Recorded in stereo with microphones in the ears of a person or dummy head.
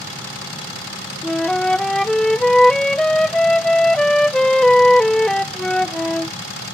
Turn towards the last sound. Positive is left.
turn(degrees=5)  # may be behind; listen again after turning